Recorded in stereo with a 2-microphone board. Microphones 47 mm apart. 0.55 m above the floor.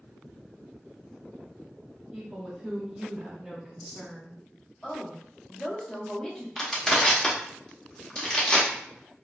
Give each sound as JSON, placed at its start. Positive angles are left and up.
{"t": 2.1, "sound": "a woman speaking", "side_deg": -5, "distance_m": 0.7}
{"t": 4.8, "sound": "a woman speaking", "side_deg": 15, "distance_m": 0.7}
{"t": 6.6, "sound": "crushing", "side_deg": 15, "distance_m": 0.7}